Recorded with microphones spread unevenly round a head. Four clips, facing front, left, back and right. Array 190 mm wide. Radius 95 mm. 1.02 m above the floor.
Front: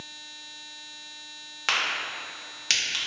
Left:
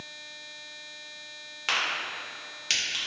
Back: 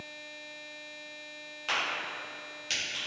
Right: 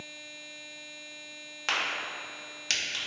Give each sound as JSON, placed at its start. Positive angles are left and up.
{"t": 1.7, "sound": "a crack", "azimuth_deg": -15, "distance_m": 0.8}